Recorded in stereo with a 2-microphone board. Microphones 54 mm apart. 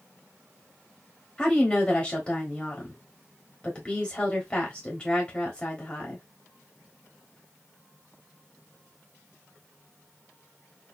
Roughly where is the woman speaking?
Centre.